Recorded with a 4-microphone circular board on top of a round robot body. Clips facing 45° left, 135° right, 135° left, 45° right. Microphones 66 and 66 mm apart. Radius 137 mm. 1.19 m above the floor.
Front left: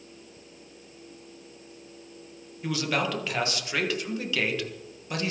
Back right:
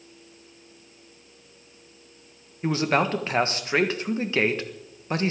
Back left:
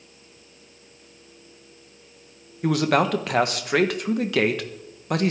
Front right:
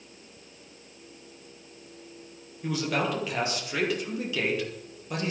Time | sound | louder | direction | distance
2.6 | a man speaking | back right 5 dB, back left 8 dB | 170° left | 1.7 m